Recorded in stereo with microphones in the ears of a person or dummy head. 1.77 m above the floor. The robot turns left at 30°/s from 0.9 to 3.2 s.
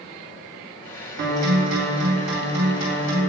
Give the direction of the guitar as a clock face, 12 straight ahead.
2 o'clock.